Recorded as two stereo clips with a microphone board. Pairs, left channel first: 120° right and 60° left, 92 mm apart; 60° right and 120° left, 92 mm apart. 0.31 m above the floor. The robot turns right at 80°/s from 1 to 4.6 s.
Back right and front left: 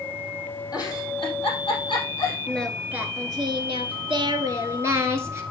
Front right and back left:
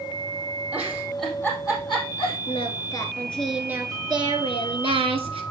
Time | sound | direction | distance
0.7 | a giggle | 165° right | 4.5 m
2.5 | singing | 50° right | 1.3 m